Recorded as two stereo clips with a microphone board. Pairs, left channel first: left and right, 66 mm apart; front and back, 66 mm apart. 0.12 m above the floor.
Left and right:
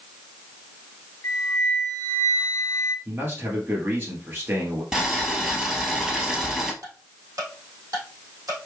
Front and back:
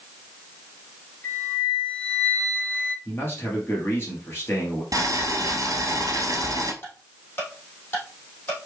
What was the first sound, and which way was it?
A flute, 50° left.